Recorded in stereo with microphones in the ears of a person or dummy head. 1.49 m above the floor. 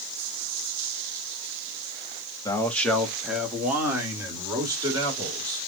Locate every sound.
2.5 s a man speaking: 15° left (ahead or behind), 0.7 m; by 5.6 s 25° right (ahead or behind), 2.5 m